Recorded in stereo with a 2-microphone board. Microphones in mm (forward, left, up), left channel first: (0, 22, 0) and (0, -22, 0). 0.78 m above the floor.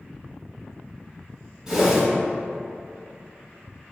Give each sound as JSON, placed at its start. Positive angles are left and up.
{"t": 1.7, "sound": "a whoosh", "side_deg": -15, "distance_m": 1.0}